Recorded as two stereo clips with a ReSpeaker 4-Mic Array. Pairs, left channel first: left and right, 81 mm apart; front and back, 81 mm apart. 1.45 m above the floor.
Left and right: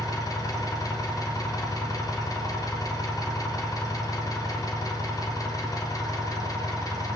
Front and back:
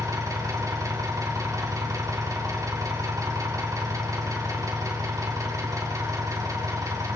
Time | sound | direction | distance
0.0 | an engine running | 135° left | 3 m